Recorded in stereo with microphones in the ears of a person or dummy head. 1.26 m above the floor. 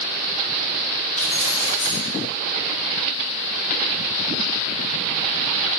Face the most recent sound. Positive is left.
turn(degrees=55)  # may be behind; listen again after turning